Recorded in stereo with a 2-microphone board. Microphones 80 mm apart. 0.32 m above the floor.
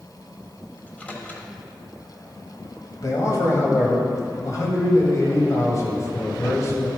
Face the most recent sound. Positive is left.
turn(degrees=40)  # may be behind; listen again after turning